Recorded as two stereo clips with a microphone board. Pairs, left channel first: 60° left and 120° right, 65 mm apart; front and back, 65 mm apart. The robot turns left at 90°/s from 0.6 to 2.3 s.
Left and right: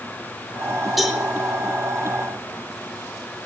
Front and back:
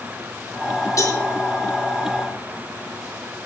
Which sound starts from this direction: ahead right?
A cowbell, at 1.0 s.